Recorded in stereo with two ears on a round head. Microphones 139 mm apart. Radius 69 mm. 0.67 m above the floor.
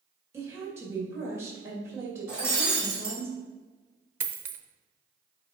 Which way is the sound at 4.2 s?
15° right (ahead or behind).